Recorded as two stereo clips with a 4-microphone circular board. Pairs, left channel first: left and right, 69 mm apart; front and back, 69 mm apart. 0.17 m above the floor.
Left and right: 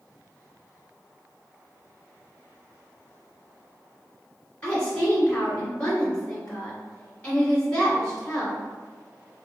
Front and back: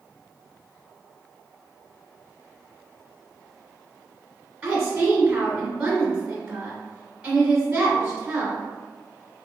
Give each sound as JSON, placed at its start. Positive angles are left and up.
{"t": 4.6, "sound": "a woman speaking", "azimuth_deg": 135, "distance_m": 1.5}